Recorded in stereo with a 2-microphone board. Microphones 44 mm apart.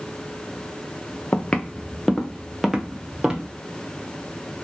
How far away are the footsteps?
About 0.8 m.